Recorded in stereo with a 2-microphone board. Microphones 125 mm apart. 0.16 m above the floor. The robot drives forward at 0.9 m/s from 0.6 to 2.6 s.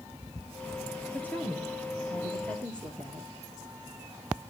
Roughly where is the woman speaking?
Centre.